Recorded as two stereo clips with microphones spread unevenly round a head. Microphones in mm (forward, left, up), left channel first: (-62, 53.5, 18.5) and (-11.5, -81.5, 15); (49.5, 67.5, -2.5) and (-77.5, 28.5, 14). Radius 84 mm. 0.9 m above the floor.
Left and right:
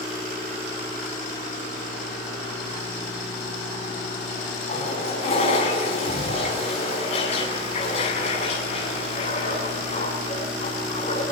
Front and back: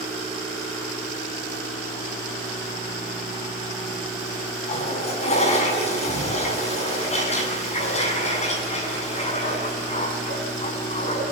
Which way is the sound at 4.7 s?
55° left.